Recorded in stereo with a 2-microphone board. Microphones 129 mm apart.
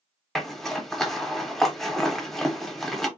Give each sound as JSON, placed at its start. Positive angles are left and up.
{"t": 0.3, "sound": "a zipper", "side_deg": 0, "distance_m": 0.5}